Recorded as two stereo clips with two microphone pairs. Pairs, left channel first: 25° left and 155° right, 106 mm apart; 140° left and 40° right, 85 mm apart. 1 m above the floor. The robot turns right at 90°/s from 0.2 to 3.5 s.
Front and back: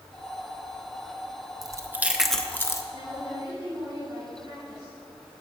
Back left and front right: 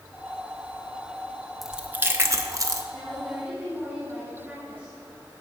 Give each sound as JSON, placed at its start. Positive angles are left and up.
{"t": 1.6, "sound": "chewing", "azimuth_deg": -125, "distance_m": 1.0}
{"t": 2.9, "sound": "a woman speaking", "azimuth_deg": -155, "distance_m": 4.5}